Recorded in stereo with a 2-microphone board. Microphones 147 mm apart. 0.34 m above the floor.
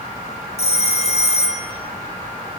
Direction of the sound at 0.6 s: 45° left (ahead or behind).